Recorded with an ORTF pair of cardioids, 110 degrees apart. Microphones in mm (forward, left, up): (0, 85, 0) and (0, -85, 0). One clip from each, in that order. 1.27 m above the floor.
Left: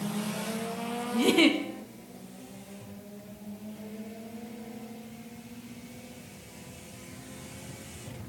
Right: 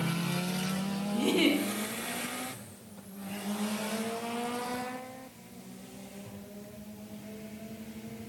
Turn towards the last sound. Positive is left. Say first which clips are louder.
# left 4 dB
turn(degrees=35)